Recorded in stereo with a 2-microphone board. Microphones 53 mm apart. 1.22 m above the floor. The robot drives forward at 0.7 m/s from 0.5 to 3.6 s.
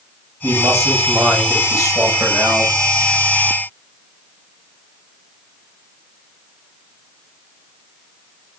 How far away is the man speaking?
About 6.5 m.